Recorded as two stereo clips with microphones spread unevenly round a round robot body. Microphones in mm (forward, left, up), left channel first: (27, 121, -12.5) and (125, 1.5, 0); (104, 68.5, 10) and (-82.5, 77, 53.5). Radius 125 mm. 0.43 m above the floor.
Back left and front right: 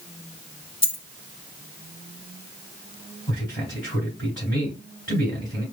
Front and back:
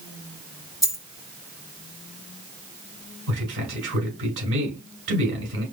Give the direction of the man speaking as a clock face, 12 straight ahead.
5 o'clock.